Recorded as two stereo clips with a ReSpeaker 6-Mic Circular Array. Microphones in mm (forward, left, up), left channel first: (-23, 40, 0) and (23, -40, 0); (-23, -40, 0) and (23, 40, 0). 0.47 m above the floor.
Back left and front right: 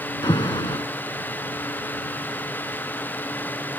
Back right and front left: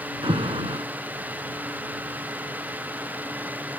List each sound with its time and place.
0.2 s an alarm: 85° left